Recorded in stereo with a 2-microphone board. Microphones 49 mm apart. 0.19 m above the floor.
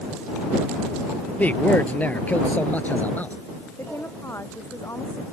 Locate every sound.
1.4 s a man speaking: 35° left (ahead or behind)
3.8 s a woman speaking: 65° left (ahead or behind)